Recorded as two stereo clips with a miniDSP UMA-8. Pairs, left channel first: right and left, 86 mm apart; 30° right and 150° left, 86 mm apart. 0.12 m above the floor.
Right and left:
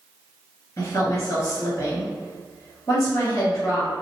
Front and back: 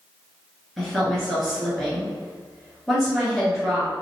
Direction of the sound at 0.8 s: 120° right.